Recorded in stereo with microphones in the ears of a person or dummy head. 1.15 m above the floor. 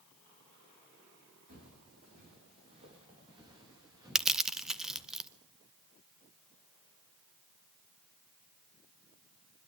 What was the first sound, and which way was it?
Footsteps, 50° right (ahead or behind).